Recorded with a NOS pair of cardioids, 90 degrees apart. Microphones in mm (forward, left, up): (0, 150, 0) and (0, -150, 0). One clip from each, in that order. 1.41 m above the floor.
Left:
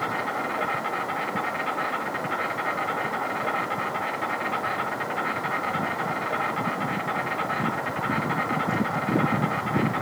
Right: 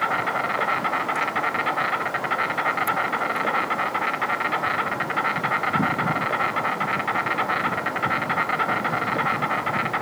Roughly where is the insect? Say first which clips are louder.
Right 4 dB; ahead right.